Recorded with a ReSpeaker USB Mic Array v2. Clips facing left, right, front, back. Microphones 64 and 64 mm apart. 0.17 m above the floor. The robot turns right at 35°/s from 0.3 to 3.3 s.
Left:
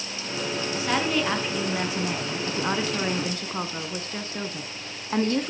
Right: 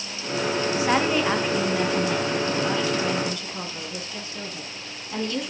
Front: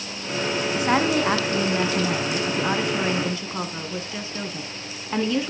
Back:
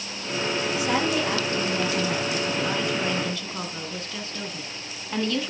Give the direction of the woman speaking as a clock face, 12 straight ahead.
1 o'clock.